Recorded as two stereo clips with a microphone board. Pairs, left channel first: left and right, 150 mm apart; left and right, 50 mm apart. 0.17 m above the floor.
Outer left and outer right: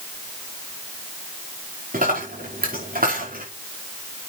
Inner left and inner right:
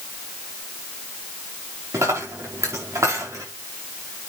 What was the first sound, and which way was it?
A dropped coin, 70° right (ahead or behind).